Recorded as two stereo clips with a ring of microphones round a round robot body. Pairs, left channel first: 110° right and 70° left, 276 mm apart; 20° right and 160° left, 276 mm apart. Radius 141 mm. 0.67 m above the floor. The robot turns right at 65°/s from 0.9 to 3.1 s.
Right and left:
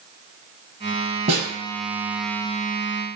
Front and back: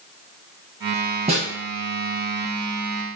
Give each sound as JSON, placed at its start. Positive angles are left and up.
{"t": 1.3, "sound": "a snare drum", "azimuth_deg": 110, "distance_m": 0.5}